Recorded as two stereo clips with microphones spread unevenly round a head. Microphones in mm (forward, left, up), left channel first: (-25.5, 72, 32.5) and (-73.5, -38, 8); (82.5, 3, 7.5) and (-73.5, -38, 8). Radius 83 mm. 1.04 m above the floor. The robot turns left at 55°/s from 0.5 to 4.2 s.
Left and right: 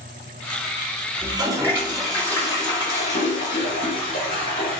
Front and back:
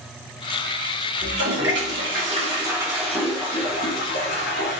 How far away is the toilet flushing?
About 2.5 m.